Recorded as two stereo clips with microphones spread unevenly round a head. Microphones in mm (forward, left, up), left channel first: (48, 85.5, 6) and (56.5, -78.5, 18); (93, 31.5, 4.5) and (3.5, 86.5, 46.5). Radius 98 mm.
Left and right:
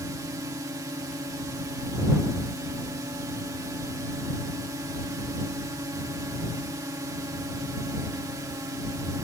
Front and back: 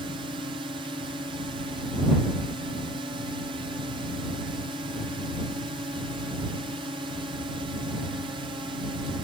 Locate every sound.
0.0 s a drone: 155° right